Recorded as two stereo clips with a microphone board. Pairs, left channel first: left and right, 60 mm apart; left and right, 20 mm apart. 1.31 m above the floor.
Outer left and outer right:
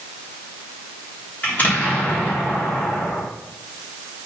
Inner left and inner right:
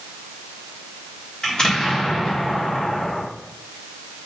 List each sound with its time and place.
1.4 s an explosion: 30° left (ahead or behind), 3.5 m